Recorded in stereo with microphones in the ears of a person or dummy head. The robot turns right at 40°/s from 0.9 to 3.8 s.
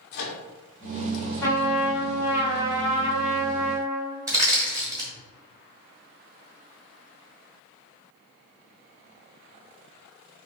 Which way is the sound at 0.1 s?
55° left (ahead or behind).